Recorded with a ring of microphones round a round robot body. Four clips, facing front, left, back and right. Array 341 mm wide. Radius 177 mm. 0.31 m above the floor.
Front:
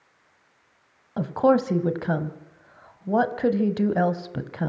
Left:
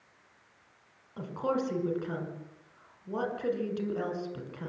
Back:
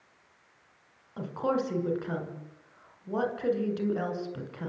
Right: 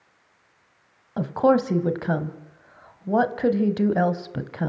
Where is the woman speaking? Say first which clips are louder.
Right 12 dB, front 9 dB; 45° right, 2.5 m.